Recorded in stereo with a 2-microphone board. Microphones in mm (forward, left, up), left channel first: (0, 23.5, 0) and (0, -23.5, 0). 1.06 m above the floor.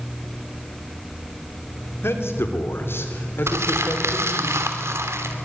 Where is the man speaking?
65° left (ahead or behind), 3.5 m; by 4.5 s 45° left (ahead or behind), 4.5 m.